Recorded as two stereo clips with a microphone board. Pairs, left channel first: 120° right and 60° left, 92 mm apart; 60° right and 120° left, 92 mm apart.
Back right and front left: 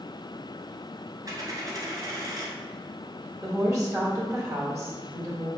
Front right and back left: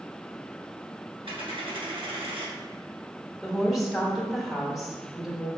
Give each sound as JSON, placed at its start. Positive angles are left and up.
{"t": 1.2, "sound": "a dropped coin", "azimuth_deg": 110, "distance_m": 1.4}
{"t": 3.4, "sound": "a woman speaking", "azimuth_deg": 35, "distance_m": 1.3}